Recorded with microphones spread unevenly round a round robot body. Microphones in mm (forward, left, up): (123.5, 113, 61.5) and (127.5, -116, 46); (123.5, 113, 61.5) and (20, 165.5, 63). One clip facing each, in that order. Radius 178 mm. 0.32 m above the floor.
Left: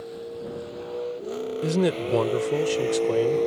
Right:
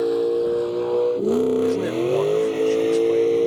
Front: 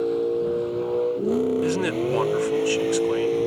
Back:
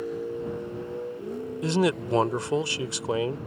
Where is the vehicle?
80° right; by 3.5 s 35° right.